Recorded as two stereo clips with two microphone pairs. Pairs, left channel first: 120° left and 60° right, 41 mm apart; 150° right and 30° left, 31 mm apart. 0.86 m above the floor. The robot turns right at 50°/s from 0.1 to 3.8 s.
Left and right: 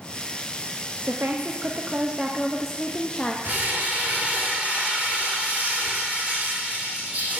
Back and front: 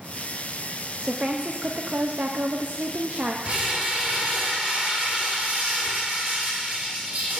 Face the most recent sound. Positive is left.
turn(degrees=0)